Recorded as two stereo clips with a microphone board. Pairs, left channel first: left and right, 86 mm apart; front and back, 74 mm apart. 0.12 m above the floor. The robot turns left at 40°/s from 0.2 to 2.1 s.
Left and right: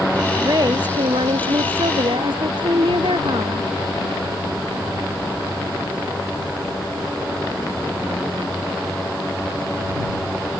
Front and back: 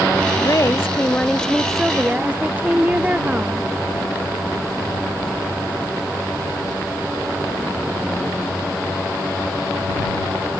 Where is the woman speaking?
40° right; by 3.7 s 110° right.